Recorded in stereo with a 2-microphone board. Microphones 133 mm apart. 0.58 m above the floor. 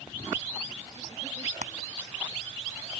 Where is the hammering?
70° right (ahead or behind).